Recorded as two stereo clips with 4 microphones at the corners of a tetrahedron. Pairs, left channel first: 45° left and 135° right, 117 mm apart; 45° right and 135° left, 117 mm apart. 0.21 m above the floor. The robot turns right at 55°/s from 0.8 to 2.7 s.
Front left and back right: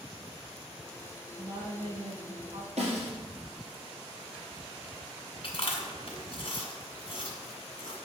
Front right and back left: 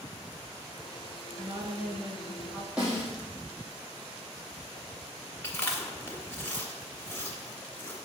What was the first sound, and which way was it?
A woman speaking, straight behind.